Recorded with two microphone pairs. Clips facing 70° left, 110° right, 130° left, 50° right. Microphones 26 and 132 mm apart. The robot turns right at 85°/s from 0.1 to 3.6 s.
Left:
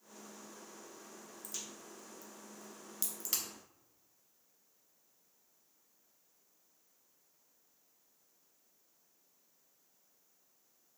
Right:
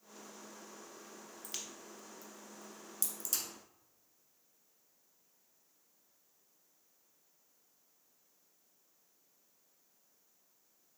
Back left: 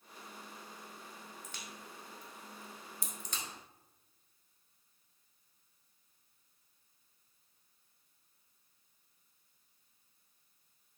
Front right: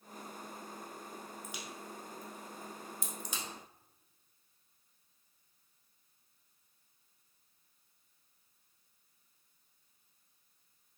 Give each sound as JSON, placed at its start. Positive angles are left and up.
{"t": 1.4, "sound": "a crack", "azimuth_deg": -130, "distance_m": 0.8}